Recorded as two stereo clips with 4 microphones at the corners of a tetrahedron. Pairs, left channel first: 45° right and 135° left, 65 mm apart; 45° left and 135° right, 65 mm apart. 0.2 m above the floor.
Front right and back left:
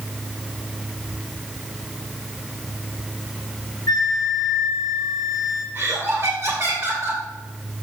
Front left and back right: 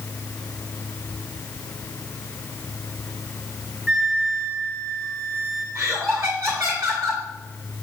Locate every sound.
3.9 s a flute: 45° right, 1.9 m
5.8 s laughter: 170° right, 2.5 m